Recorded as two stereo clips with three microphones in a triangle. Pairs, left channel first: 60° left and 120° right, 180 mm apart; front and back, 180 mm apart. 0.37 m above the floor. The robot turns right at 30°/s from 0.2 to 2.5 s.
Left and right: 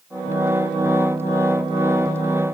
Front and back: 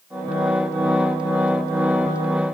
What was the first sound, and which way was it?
Only background noise.